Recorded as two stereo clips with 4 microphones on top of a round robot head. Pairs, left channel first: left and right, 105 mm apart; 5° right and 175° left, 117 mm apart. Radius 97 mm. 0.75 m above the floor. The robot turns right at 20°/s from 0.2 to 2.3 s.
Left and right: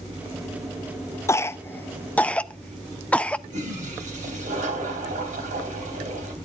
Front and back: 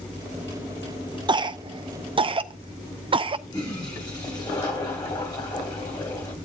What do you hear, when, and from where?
1.3 s a cough: 145° left, 0.5 m; by 3.4 s 165° left, 0.5 m
3.5 s a toilet flushing: 70° right, 3 m